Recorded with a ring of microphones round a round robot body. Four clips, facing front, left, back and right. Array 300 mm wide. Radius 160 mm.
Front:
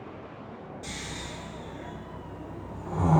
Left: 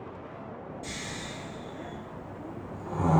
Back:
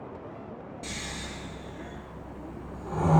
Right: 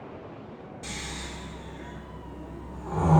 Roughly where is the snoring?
Right.